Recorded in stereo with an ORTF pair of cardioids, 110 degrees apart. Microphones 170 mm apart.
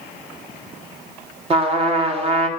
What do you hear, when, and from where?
1.5 s a trumpet: 35° right, 1.6 m